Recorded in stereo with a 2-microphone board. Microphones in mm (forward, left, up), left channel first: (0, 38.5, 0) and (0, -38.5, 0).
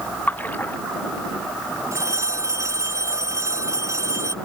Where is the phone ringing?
40° right (ahead or behind).